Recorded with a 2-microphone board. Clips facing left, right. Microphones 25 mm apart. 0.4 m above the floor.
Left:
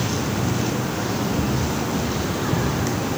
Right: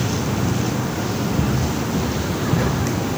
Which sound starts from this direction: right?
Footsteps, at 1.4 s.